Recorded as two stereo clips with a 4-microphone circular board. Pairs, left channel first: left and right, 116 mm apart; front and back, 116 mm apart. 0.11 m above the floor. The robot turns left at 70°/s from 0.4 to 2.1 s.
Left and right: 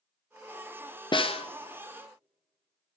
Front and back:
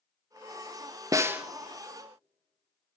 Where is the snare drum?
125° left, 0.5 m; by 1.5 s 100° left, 0.5 m.